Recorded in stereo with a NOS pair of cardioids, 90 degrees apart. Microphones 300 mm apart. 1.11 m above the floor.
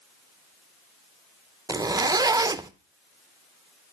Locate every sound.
1.7 s a zipper: 15° right, 0.7 m